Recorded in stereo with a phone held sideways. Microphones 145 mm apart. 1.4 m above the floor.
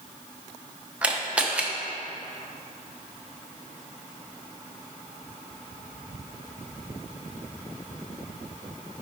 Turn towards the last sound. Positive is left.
turn(degrees=-10)  # may be behind; listen again after turning